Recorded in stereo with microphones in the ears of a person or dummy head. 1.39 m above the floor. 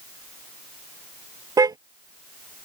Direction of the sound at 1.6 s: 25° right (ahead or behind).